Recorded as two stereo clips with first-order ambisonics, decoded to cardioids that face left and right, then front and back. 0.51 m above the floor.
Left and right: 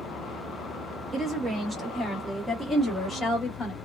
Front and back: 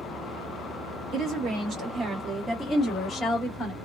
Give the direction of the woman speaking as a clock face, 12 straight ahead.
5 o'clock.